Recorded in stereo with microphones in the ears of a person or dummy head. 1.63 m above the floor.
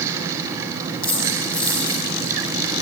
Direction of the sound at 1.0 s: 5° left (ahead or behind).